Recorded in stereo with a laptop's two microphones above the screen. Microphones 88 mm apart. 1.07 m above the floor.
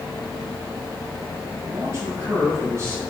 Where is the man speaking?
35° right (ahead or behind), 7 m.